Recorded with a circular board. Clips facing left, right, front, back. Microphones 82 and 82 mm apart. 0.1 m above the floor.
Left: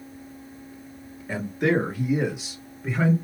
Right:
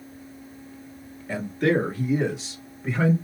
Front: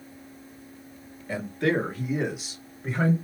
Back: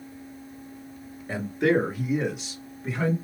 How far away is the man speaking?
About 1.9 m.